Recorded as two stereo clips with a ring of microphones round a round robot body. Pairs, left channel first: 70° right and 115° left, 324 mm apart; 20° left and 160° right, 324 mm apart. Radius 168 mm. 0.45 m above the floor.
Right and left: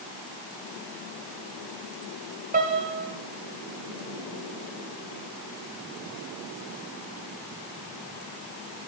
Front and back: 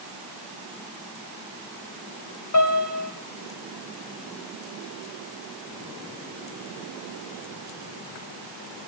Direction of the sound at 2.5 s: 50° left.